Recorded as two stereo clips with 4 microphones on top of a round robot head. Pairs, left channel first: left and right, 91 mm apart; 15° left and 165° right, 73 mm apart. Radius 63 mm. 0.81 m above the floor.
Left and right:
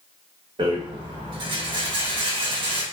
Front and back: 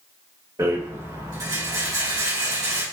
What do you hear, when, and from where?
0.6 s a rattle: 120° right, 1.8 m